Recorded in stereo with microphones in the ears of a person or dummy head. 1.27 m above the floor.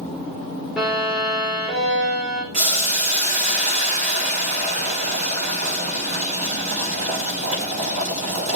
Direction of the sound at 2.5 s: 40° right (ahead or behind).